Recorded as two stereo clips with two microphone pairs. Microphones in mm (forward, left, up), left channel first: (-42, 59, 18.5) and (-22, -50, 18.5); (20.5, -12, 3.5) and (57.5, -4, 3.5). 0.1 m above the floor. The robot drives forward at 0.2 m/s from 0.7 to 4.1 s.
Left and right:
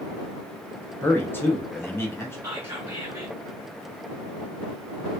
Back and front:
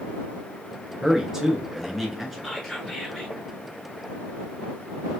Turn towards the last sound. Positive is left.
turn(degrees=-120)